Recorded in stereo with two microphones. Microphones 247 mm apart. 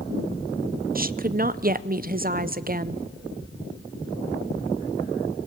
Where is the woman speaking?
35° right (ahead or behind), 0.6 m.